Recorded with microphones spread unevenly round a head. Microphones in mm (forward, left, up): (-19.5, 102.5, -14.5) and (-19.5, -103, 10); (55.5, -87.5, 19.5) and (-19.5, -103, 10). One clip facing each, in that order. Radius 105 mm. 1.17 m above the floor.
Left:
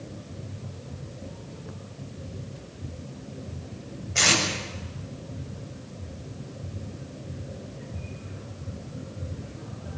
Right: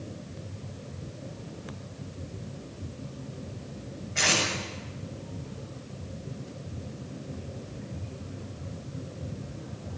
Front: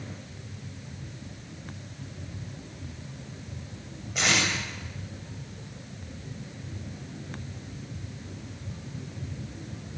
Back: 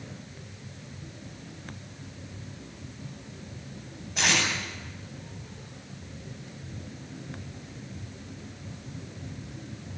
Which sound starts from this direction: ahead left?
Tape being pulled, at 4.2 s.